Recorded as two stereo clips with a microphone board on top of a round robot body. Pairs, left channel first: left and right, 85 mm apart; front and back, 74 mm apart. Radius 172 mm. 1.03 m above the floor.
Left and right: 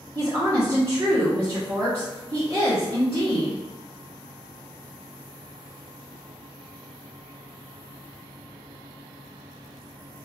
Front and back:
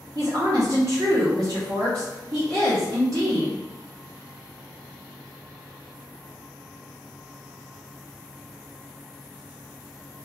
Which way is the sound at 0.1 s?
145° right.